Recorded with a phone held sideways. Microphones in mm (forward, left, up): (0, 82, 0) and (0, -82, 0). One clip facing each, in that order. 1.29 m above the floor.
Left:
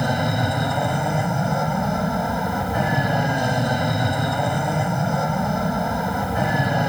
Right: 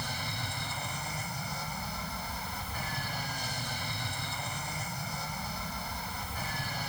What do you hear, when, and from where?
0.0 s an aircraft: 80° left